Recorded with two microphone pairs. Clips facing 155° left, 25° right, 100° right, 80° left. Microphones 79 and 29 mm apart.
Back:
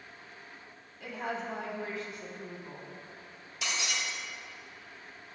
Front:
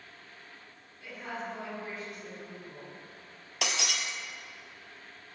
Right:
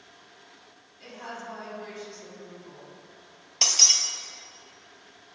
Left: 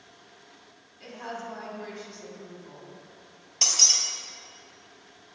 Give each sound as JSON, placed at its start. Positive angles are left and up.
{"t": 1.0, "sound": "a woman speaking", "azimuth_deg": 160, "distance_m": 5.0}
{"t": 3.6, "sound": "breaking glass", "azimuth_deg": -35, "distance_m": 1.7}